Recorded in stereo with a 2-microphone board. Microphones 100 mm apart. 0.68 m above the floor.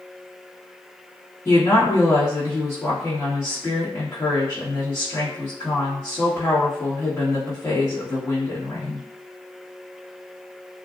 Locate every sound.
1.4 s a woman speaking: 30° left (ahead or behind), 1.3 m